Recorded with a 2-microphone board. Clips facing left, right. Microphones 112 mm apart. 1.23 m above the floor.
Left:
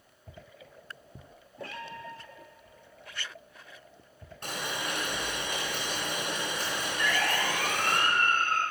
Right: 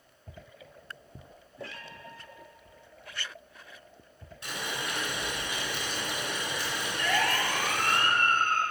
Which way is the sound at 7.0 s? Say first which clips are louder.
Right 2 dB; 60° right (ahead or behind).